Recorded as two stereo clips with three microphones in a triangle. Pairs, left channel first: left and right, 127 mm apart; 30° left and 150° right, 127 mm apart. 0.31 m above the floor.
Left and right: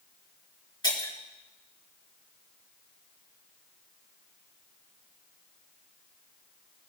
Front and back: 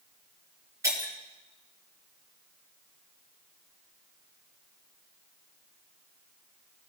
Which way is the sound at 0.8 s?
145° left.